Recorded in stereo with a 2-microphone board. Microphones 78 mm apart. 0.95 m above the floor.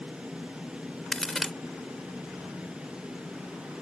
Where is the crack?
5° left (ahead or behind).